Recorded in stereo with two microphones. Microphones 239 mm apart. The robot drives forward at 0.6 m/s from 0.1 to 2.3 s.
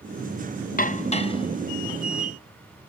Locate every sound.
0.8 s dishes clattering: 35° left (ahead or behind), 0.5 m; by 2.3 s 15° left (ahead or behind), 1.4 m